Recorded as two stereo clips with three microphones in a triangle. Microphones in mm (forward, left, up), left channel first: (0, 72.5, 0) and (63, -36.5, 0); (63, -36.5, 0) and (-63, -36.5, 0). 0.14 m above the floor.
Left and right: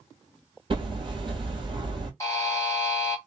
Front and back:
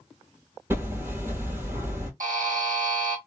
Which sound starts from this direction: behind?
A buzzer, at 2.2 s.